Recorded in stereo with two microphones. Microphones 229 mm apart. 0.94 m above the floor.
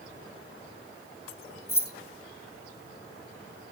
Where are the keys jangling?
75° left (ahead or behind), 0.6 m.